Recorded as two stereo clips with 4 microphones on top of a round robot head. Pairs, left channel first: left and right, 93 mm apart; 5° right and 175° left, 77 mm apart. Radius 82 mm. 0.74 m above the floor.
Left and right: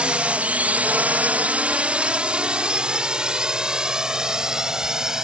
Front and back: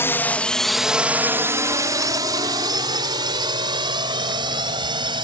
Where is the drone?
20° right; by 5.2 s 175° right.